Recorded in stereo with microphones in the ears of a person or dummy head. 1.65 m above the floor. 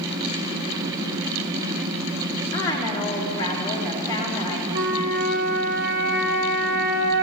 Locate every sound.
2.5 s a woman speaking: 20° left (ahead or behind), 3 m
4.7 s a flute: 40° right (ahead or behind), 2.5 m